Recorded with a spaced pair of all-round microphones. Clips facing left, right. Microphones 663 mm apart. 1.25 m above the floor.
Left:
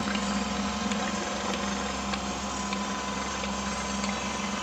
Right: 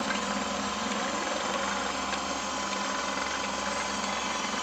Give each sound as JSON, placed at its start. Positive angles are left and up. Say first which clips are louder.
{"t": 0.0, "sound": "a helicopter", "louder": "left 3 dB", "side_deg": 60}